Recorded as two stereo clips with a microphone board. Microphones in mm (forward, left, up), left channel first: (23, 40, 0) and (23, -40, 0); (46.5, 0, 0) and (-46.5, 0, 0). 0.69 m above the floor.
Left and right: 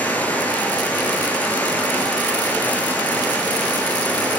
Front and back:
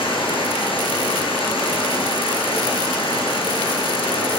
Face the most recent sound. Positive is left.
turn(degrees=20)